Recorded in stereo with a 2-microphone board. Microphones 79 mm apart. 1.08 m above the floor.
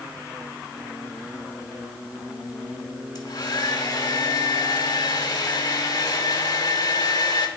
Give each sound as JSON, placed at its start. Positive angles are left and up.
{"t": 3.1, "sound": "a hair dryer", "side_deg": 60, "distance_m": 1.3}